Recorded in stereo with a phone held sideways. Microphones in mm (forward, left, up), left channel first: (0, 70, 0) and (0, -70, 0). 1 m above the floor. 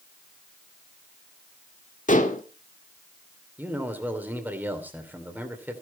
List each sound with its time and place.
2.1 s dishes clattering: 65° left (ahead or behind), 1.6 m
3.6 s a man speaking: 10° right (ahead or behind), 2.5 m